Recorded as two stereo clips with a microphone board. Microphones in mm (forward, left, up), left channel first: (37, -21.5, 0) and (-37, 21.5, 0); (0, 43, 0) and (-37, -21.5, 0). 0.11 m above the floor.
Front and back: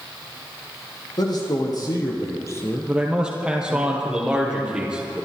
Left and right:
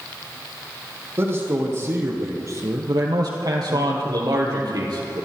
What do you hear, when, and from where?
1.2 s a man speaking: 65° right, 4 m; by 3.9 s 155° right, 1.5 m
2.9 s a man speaking: 130° right, 3 m